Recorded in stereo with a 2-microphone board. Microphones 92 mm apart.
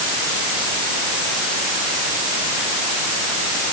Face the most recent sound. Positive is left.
No sound to turn to.